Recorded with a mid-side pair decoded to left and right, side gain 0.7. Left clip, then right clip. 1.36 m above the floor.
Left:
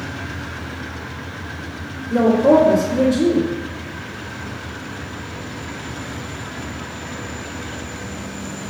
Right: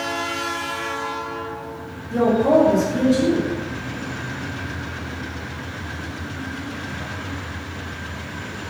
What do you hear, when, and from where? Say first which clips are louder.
2.1 s a woman speaking: left 3 dB; 35° left, 1.8 m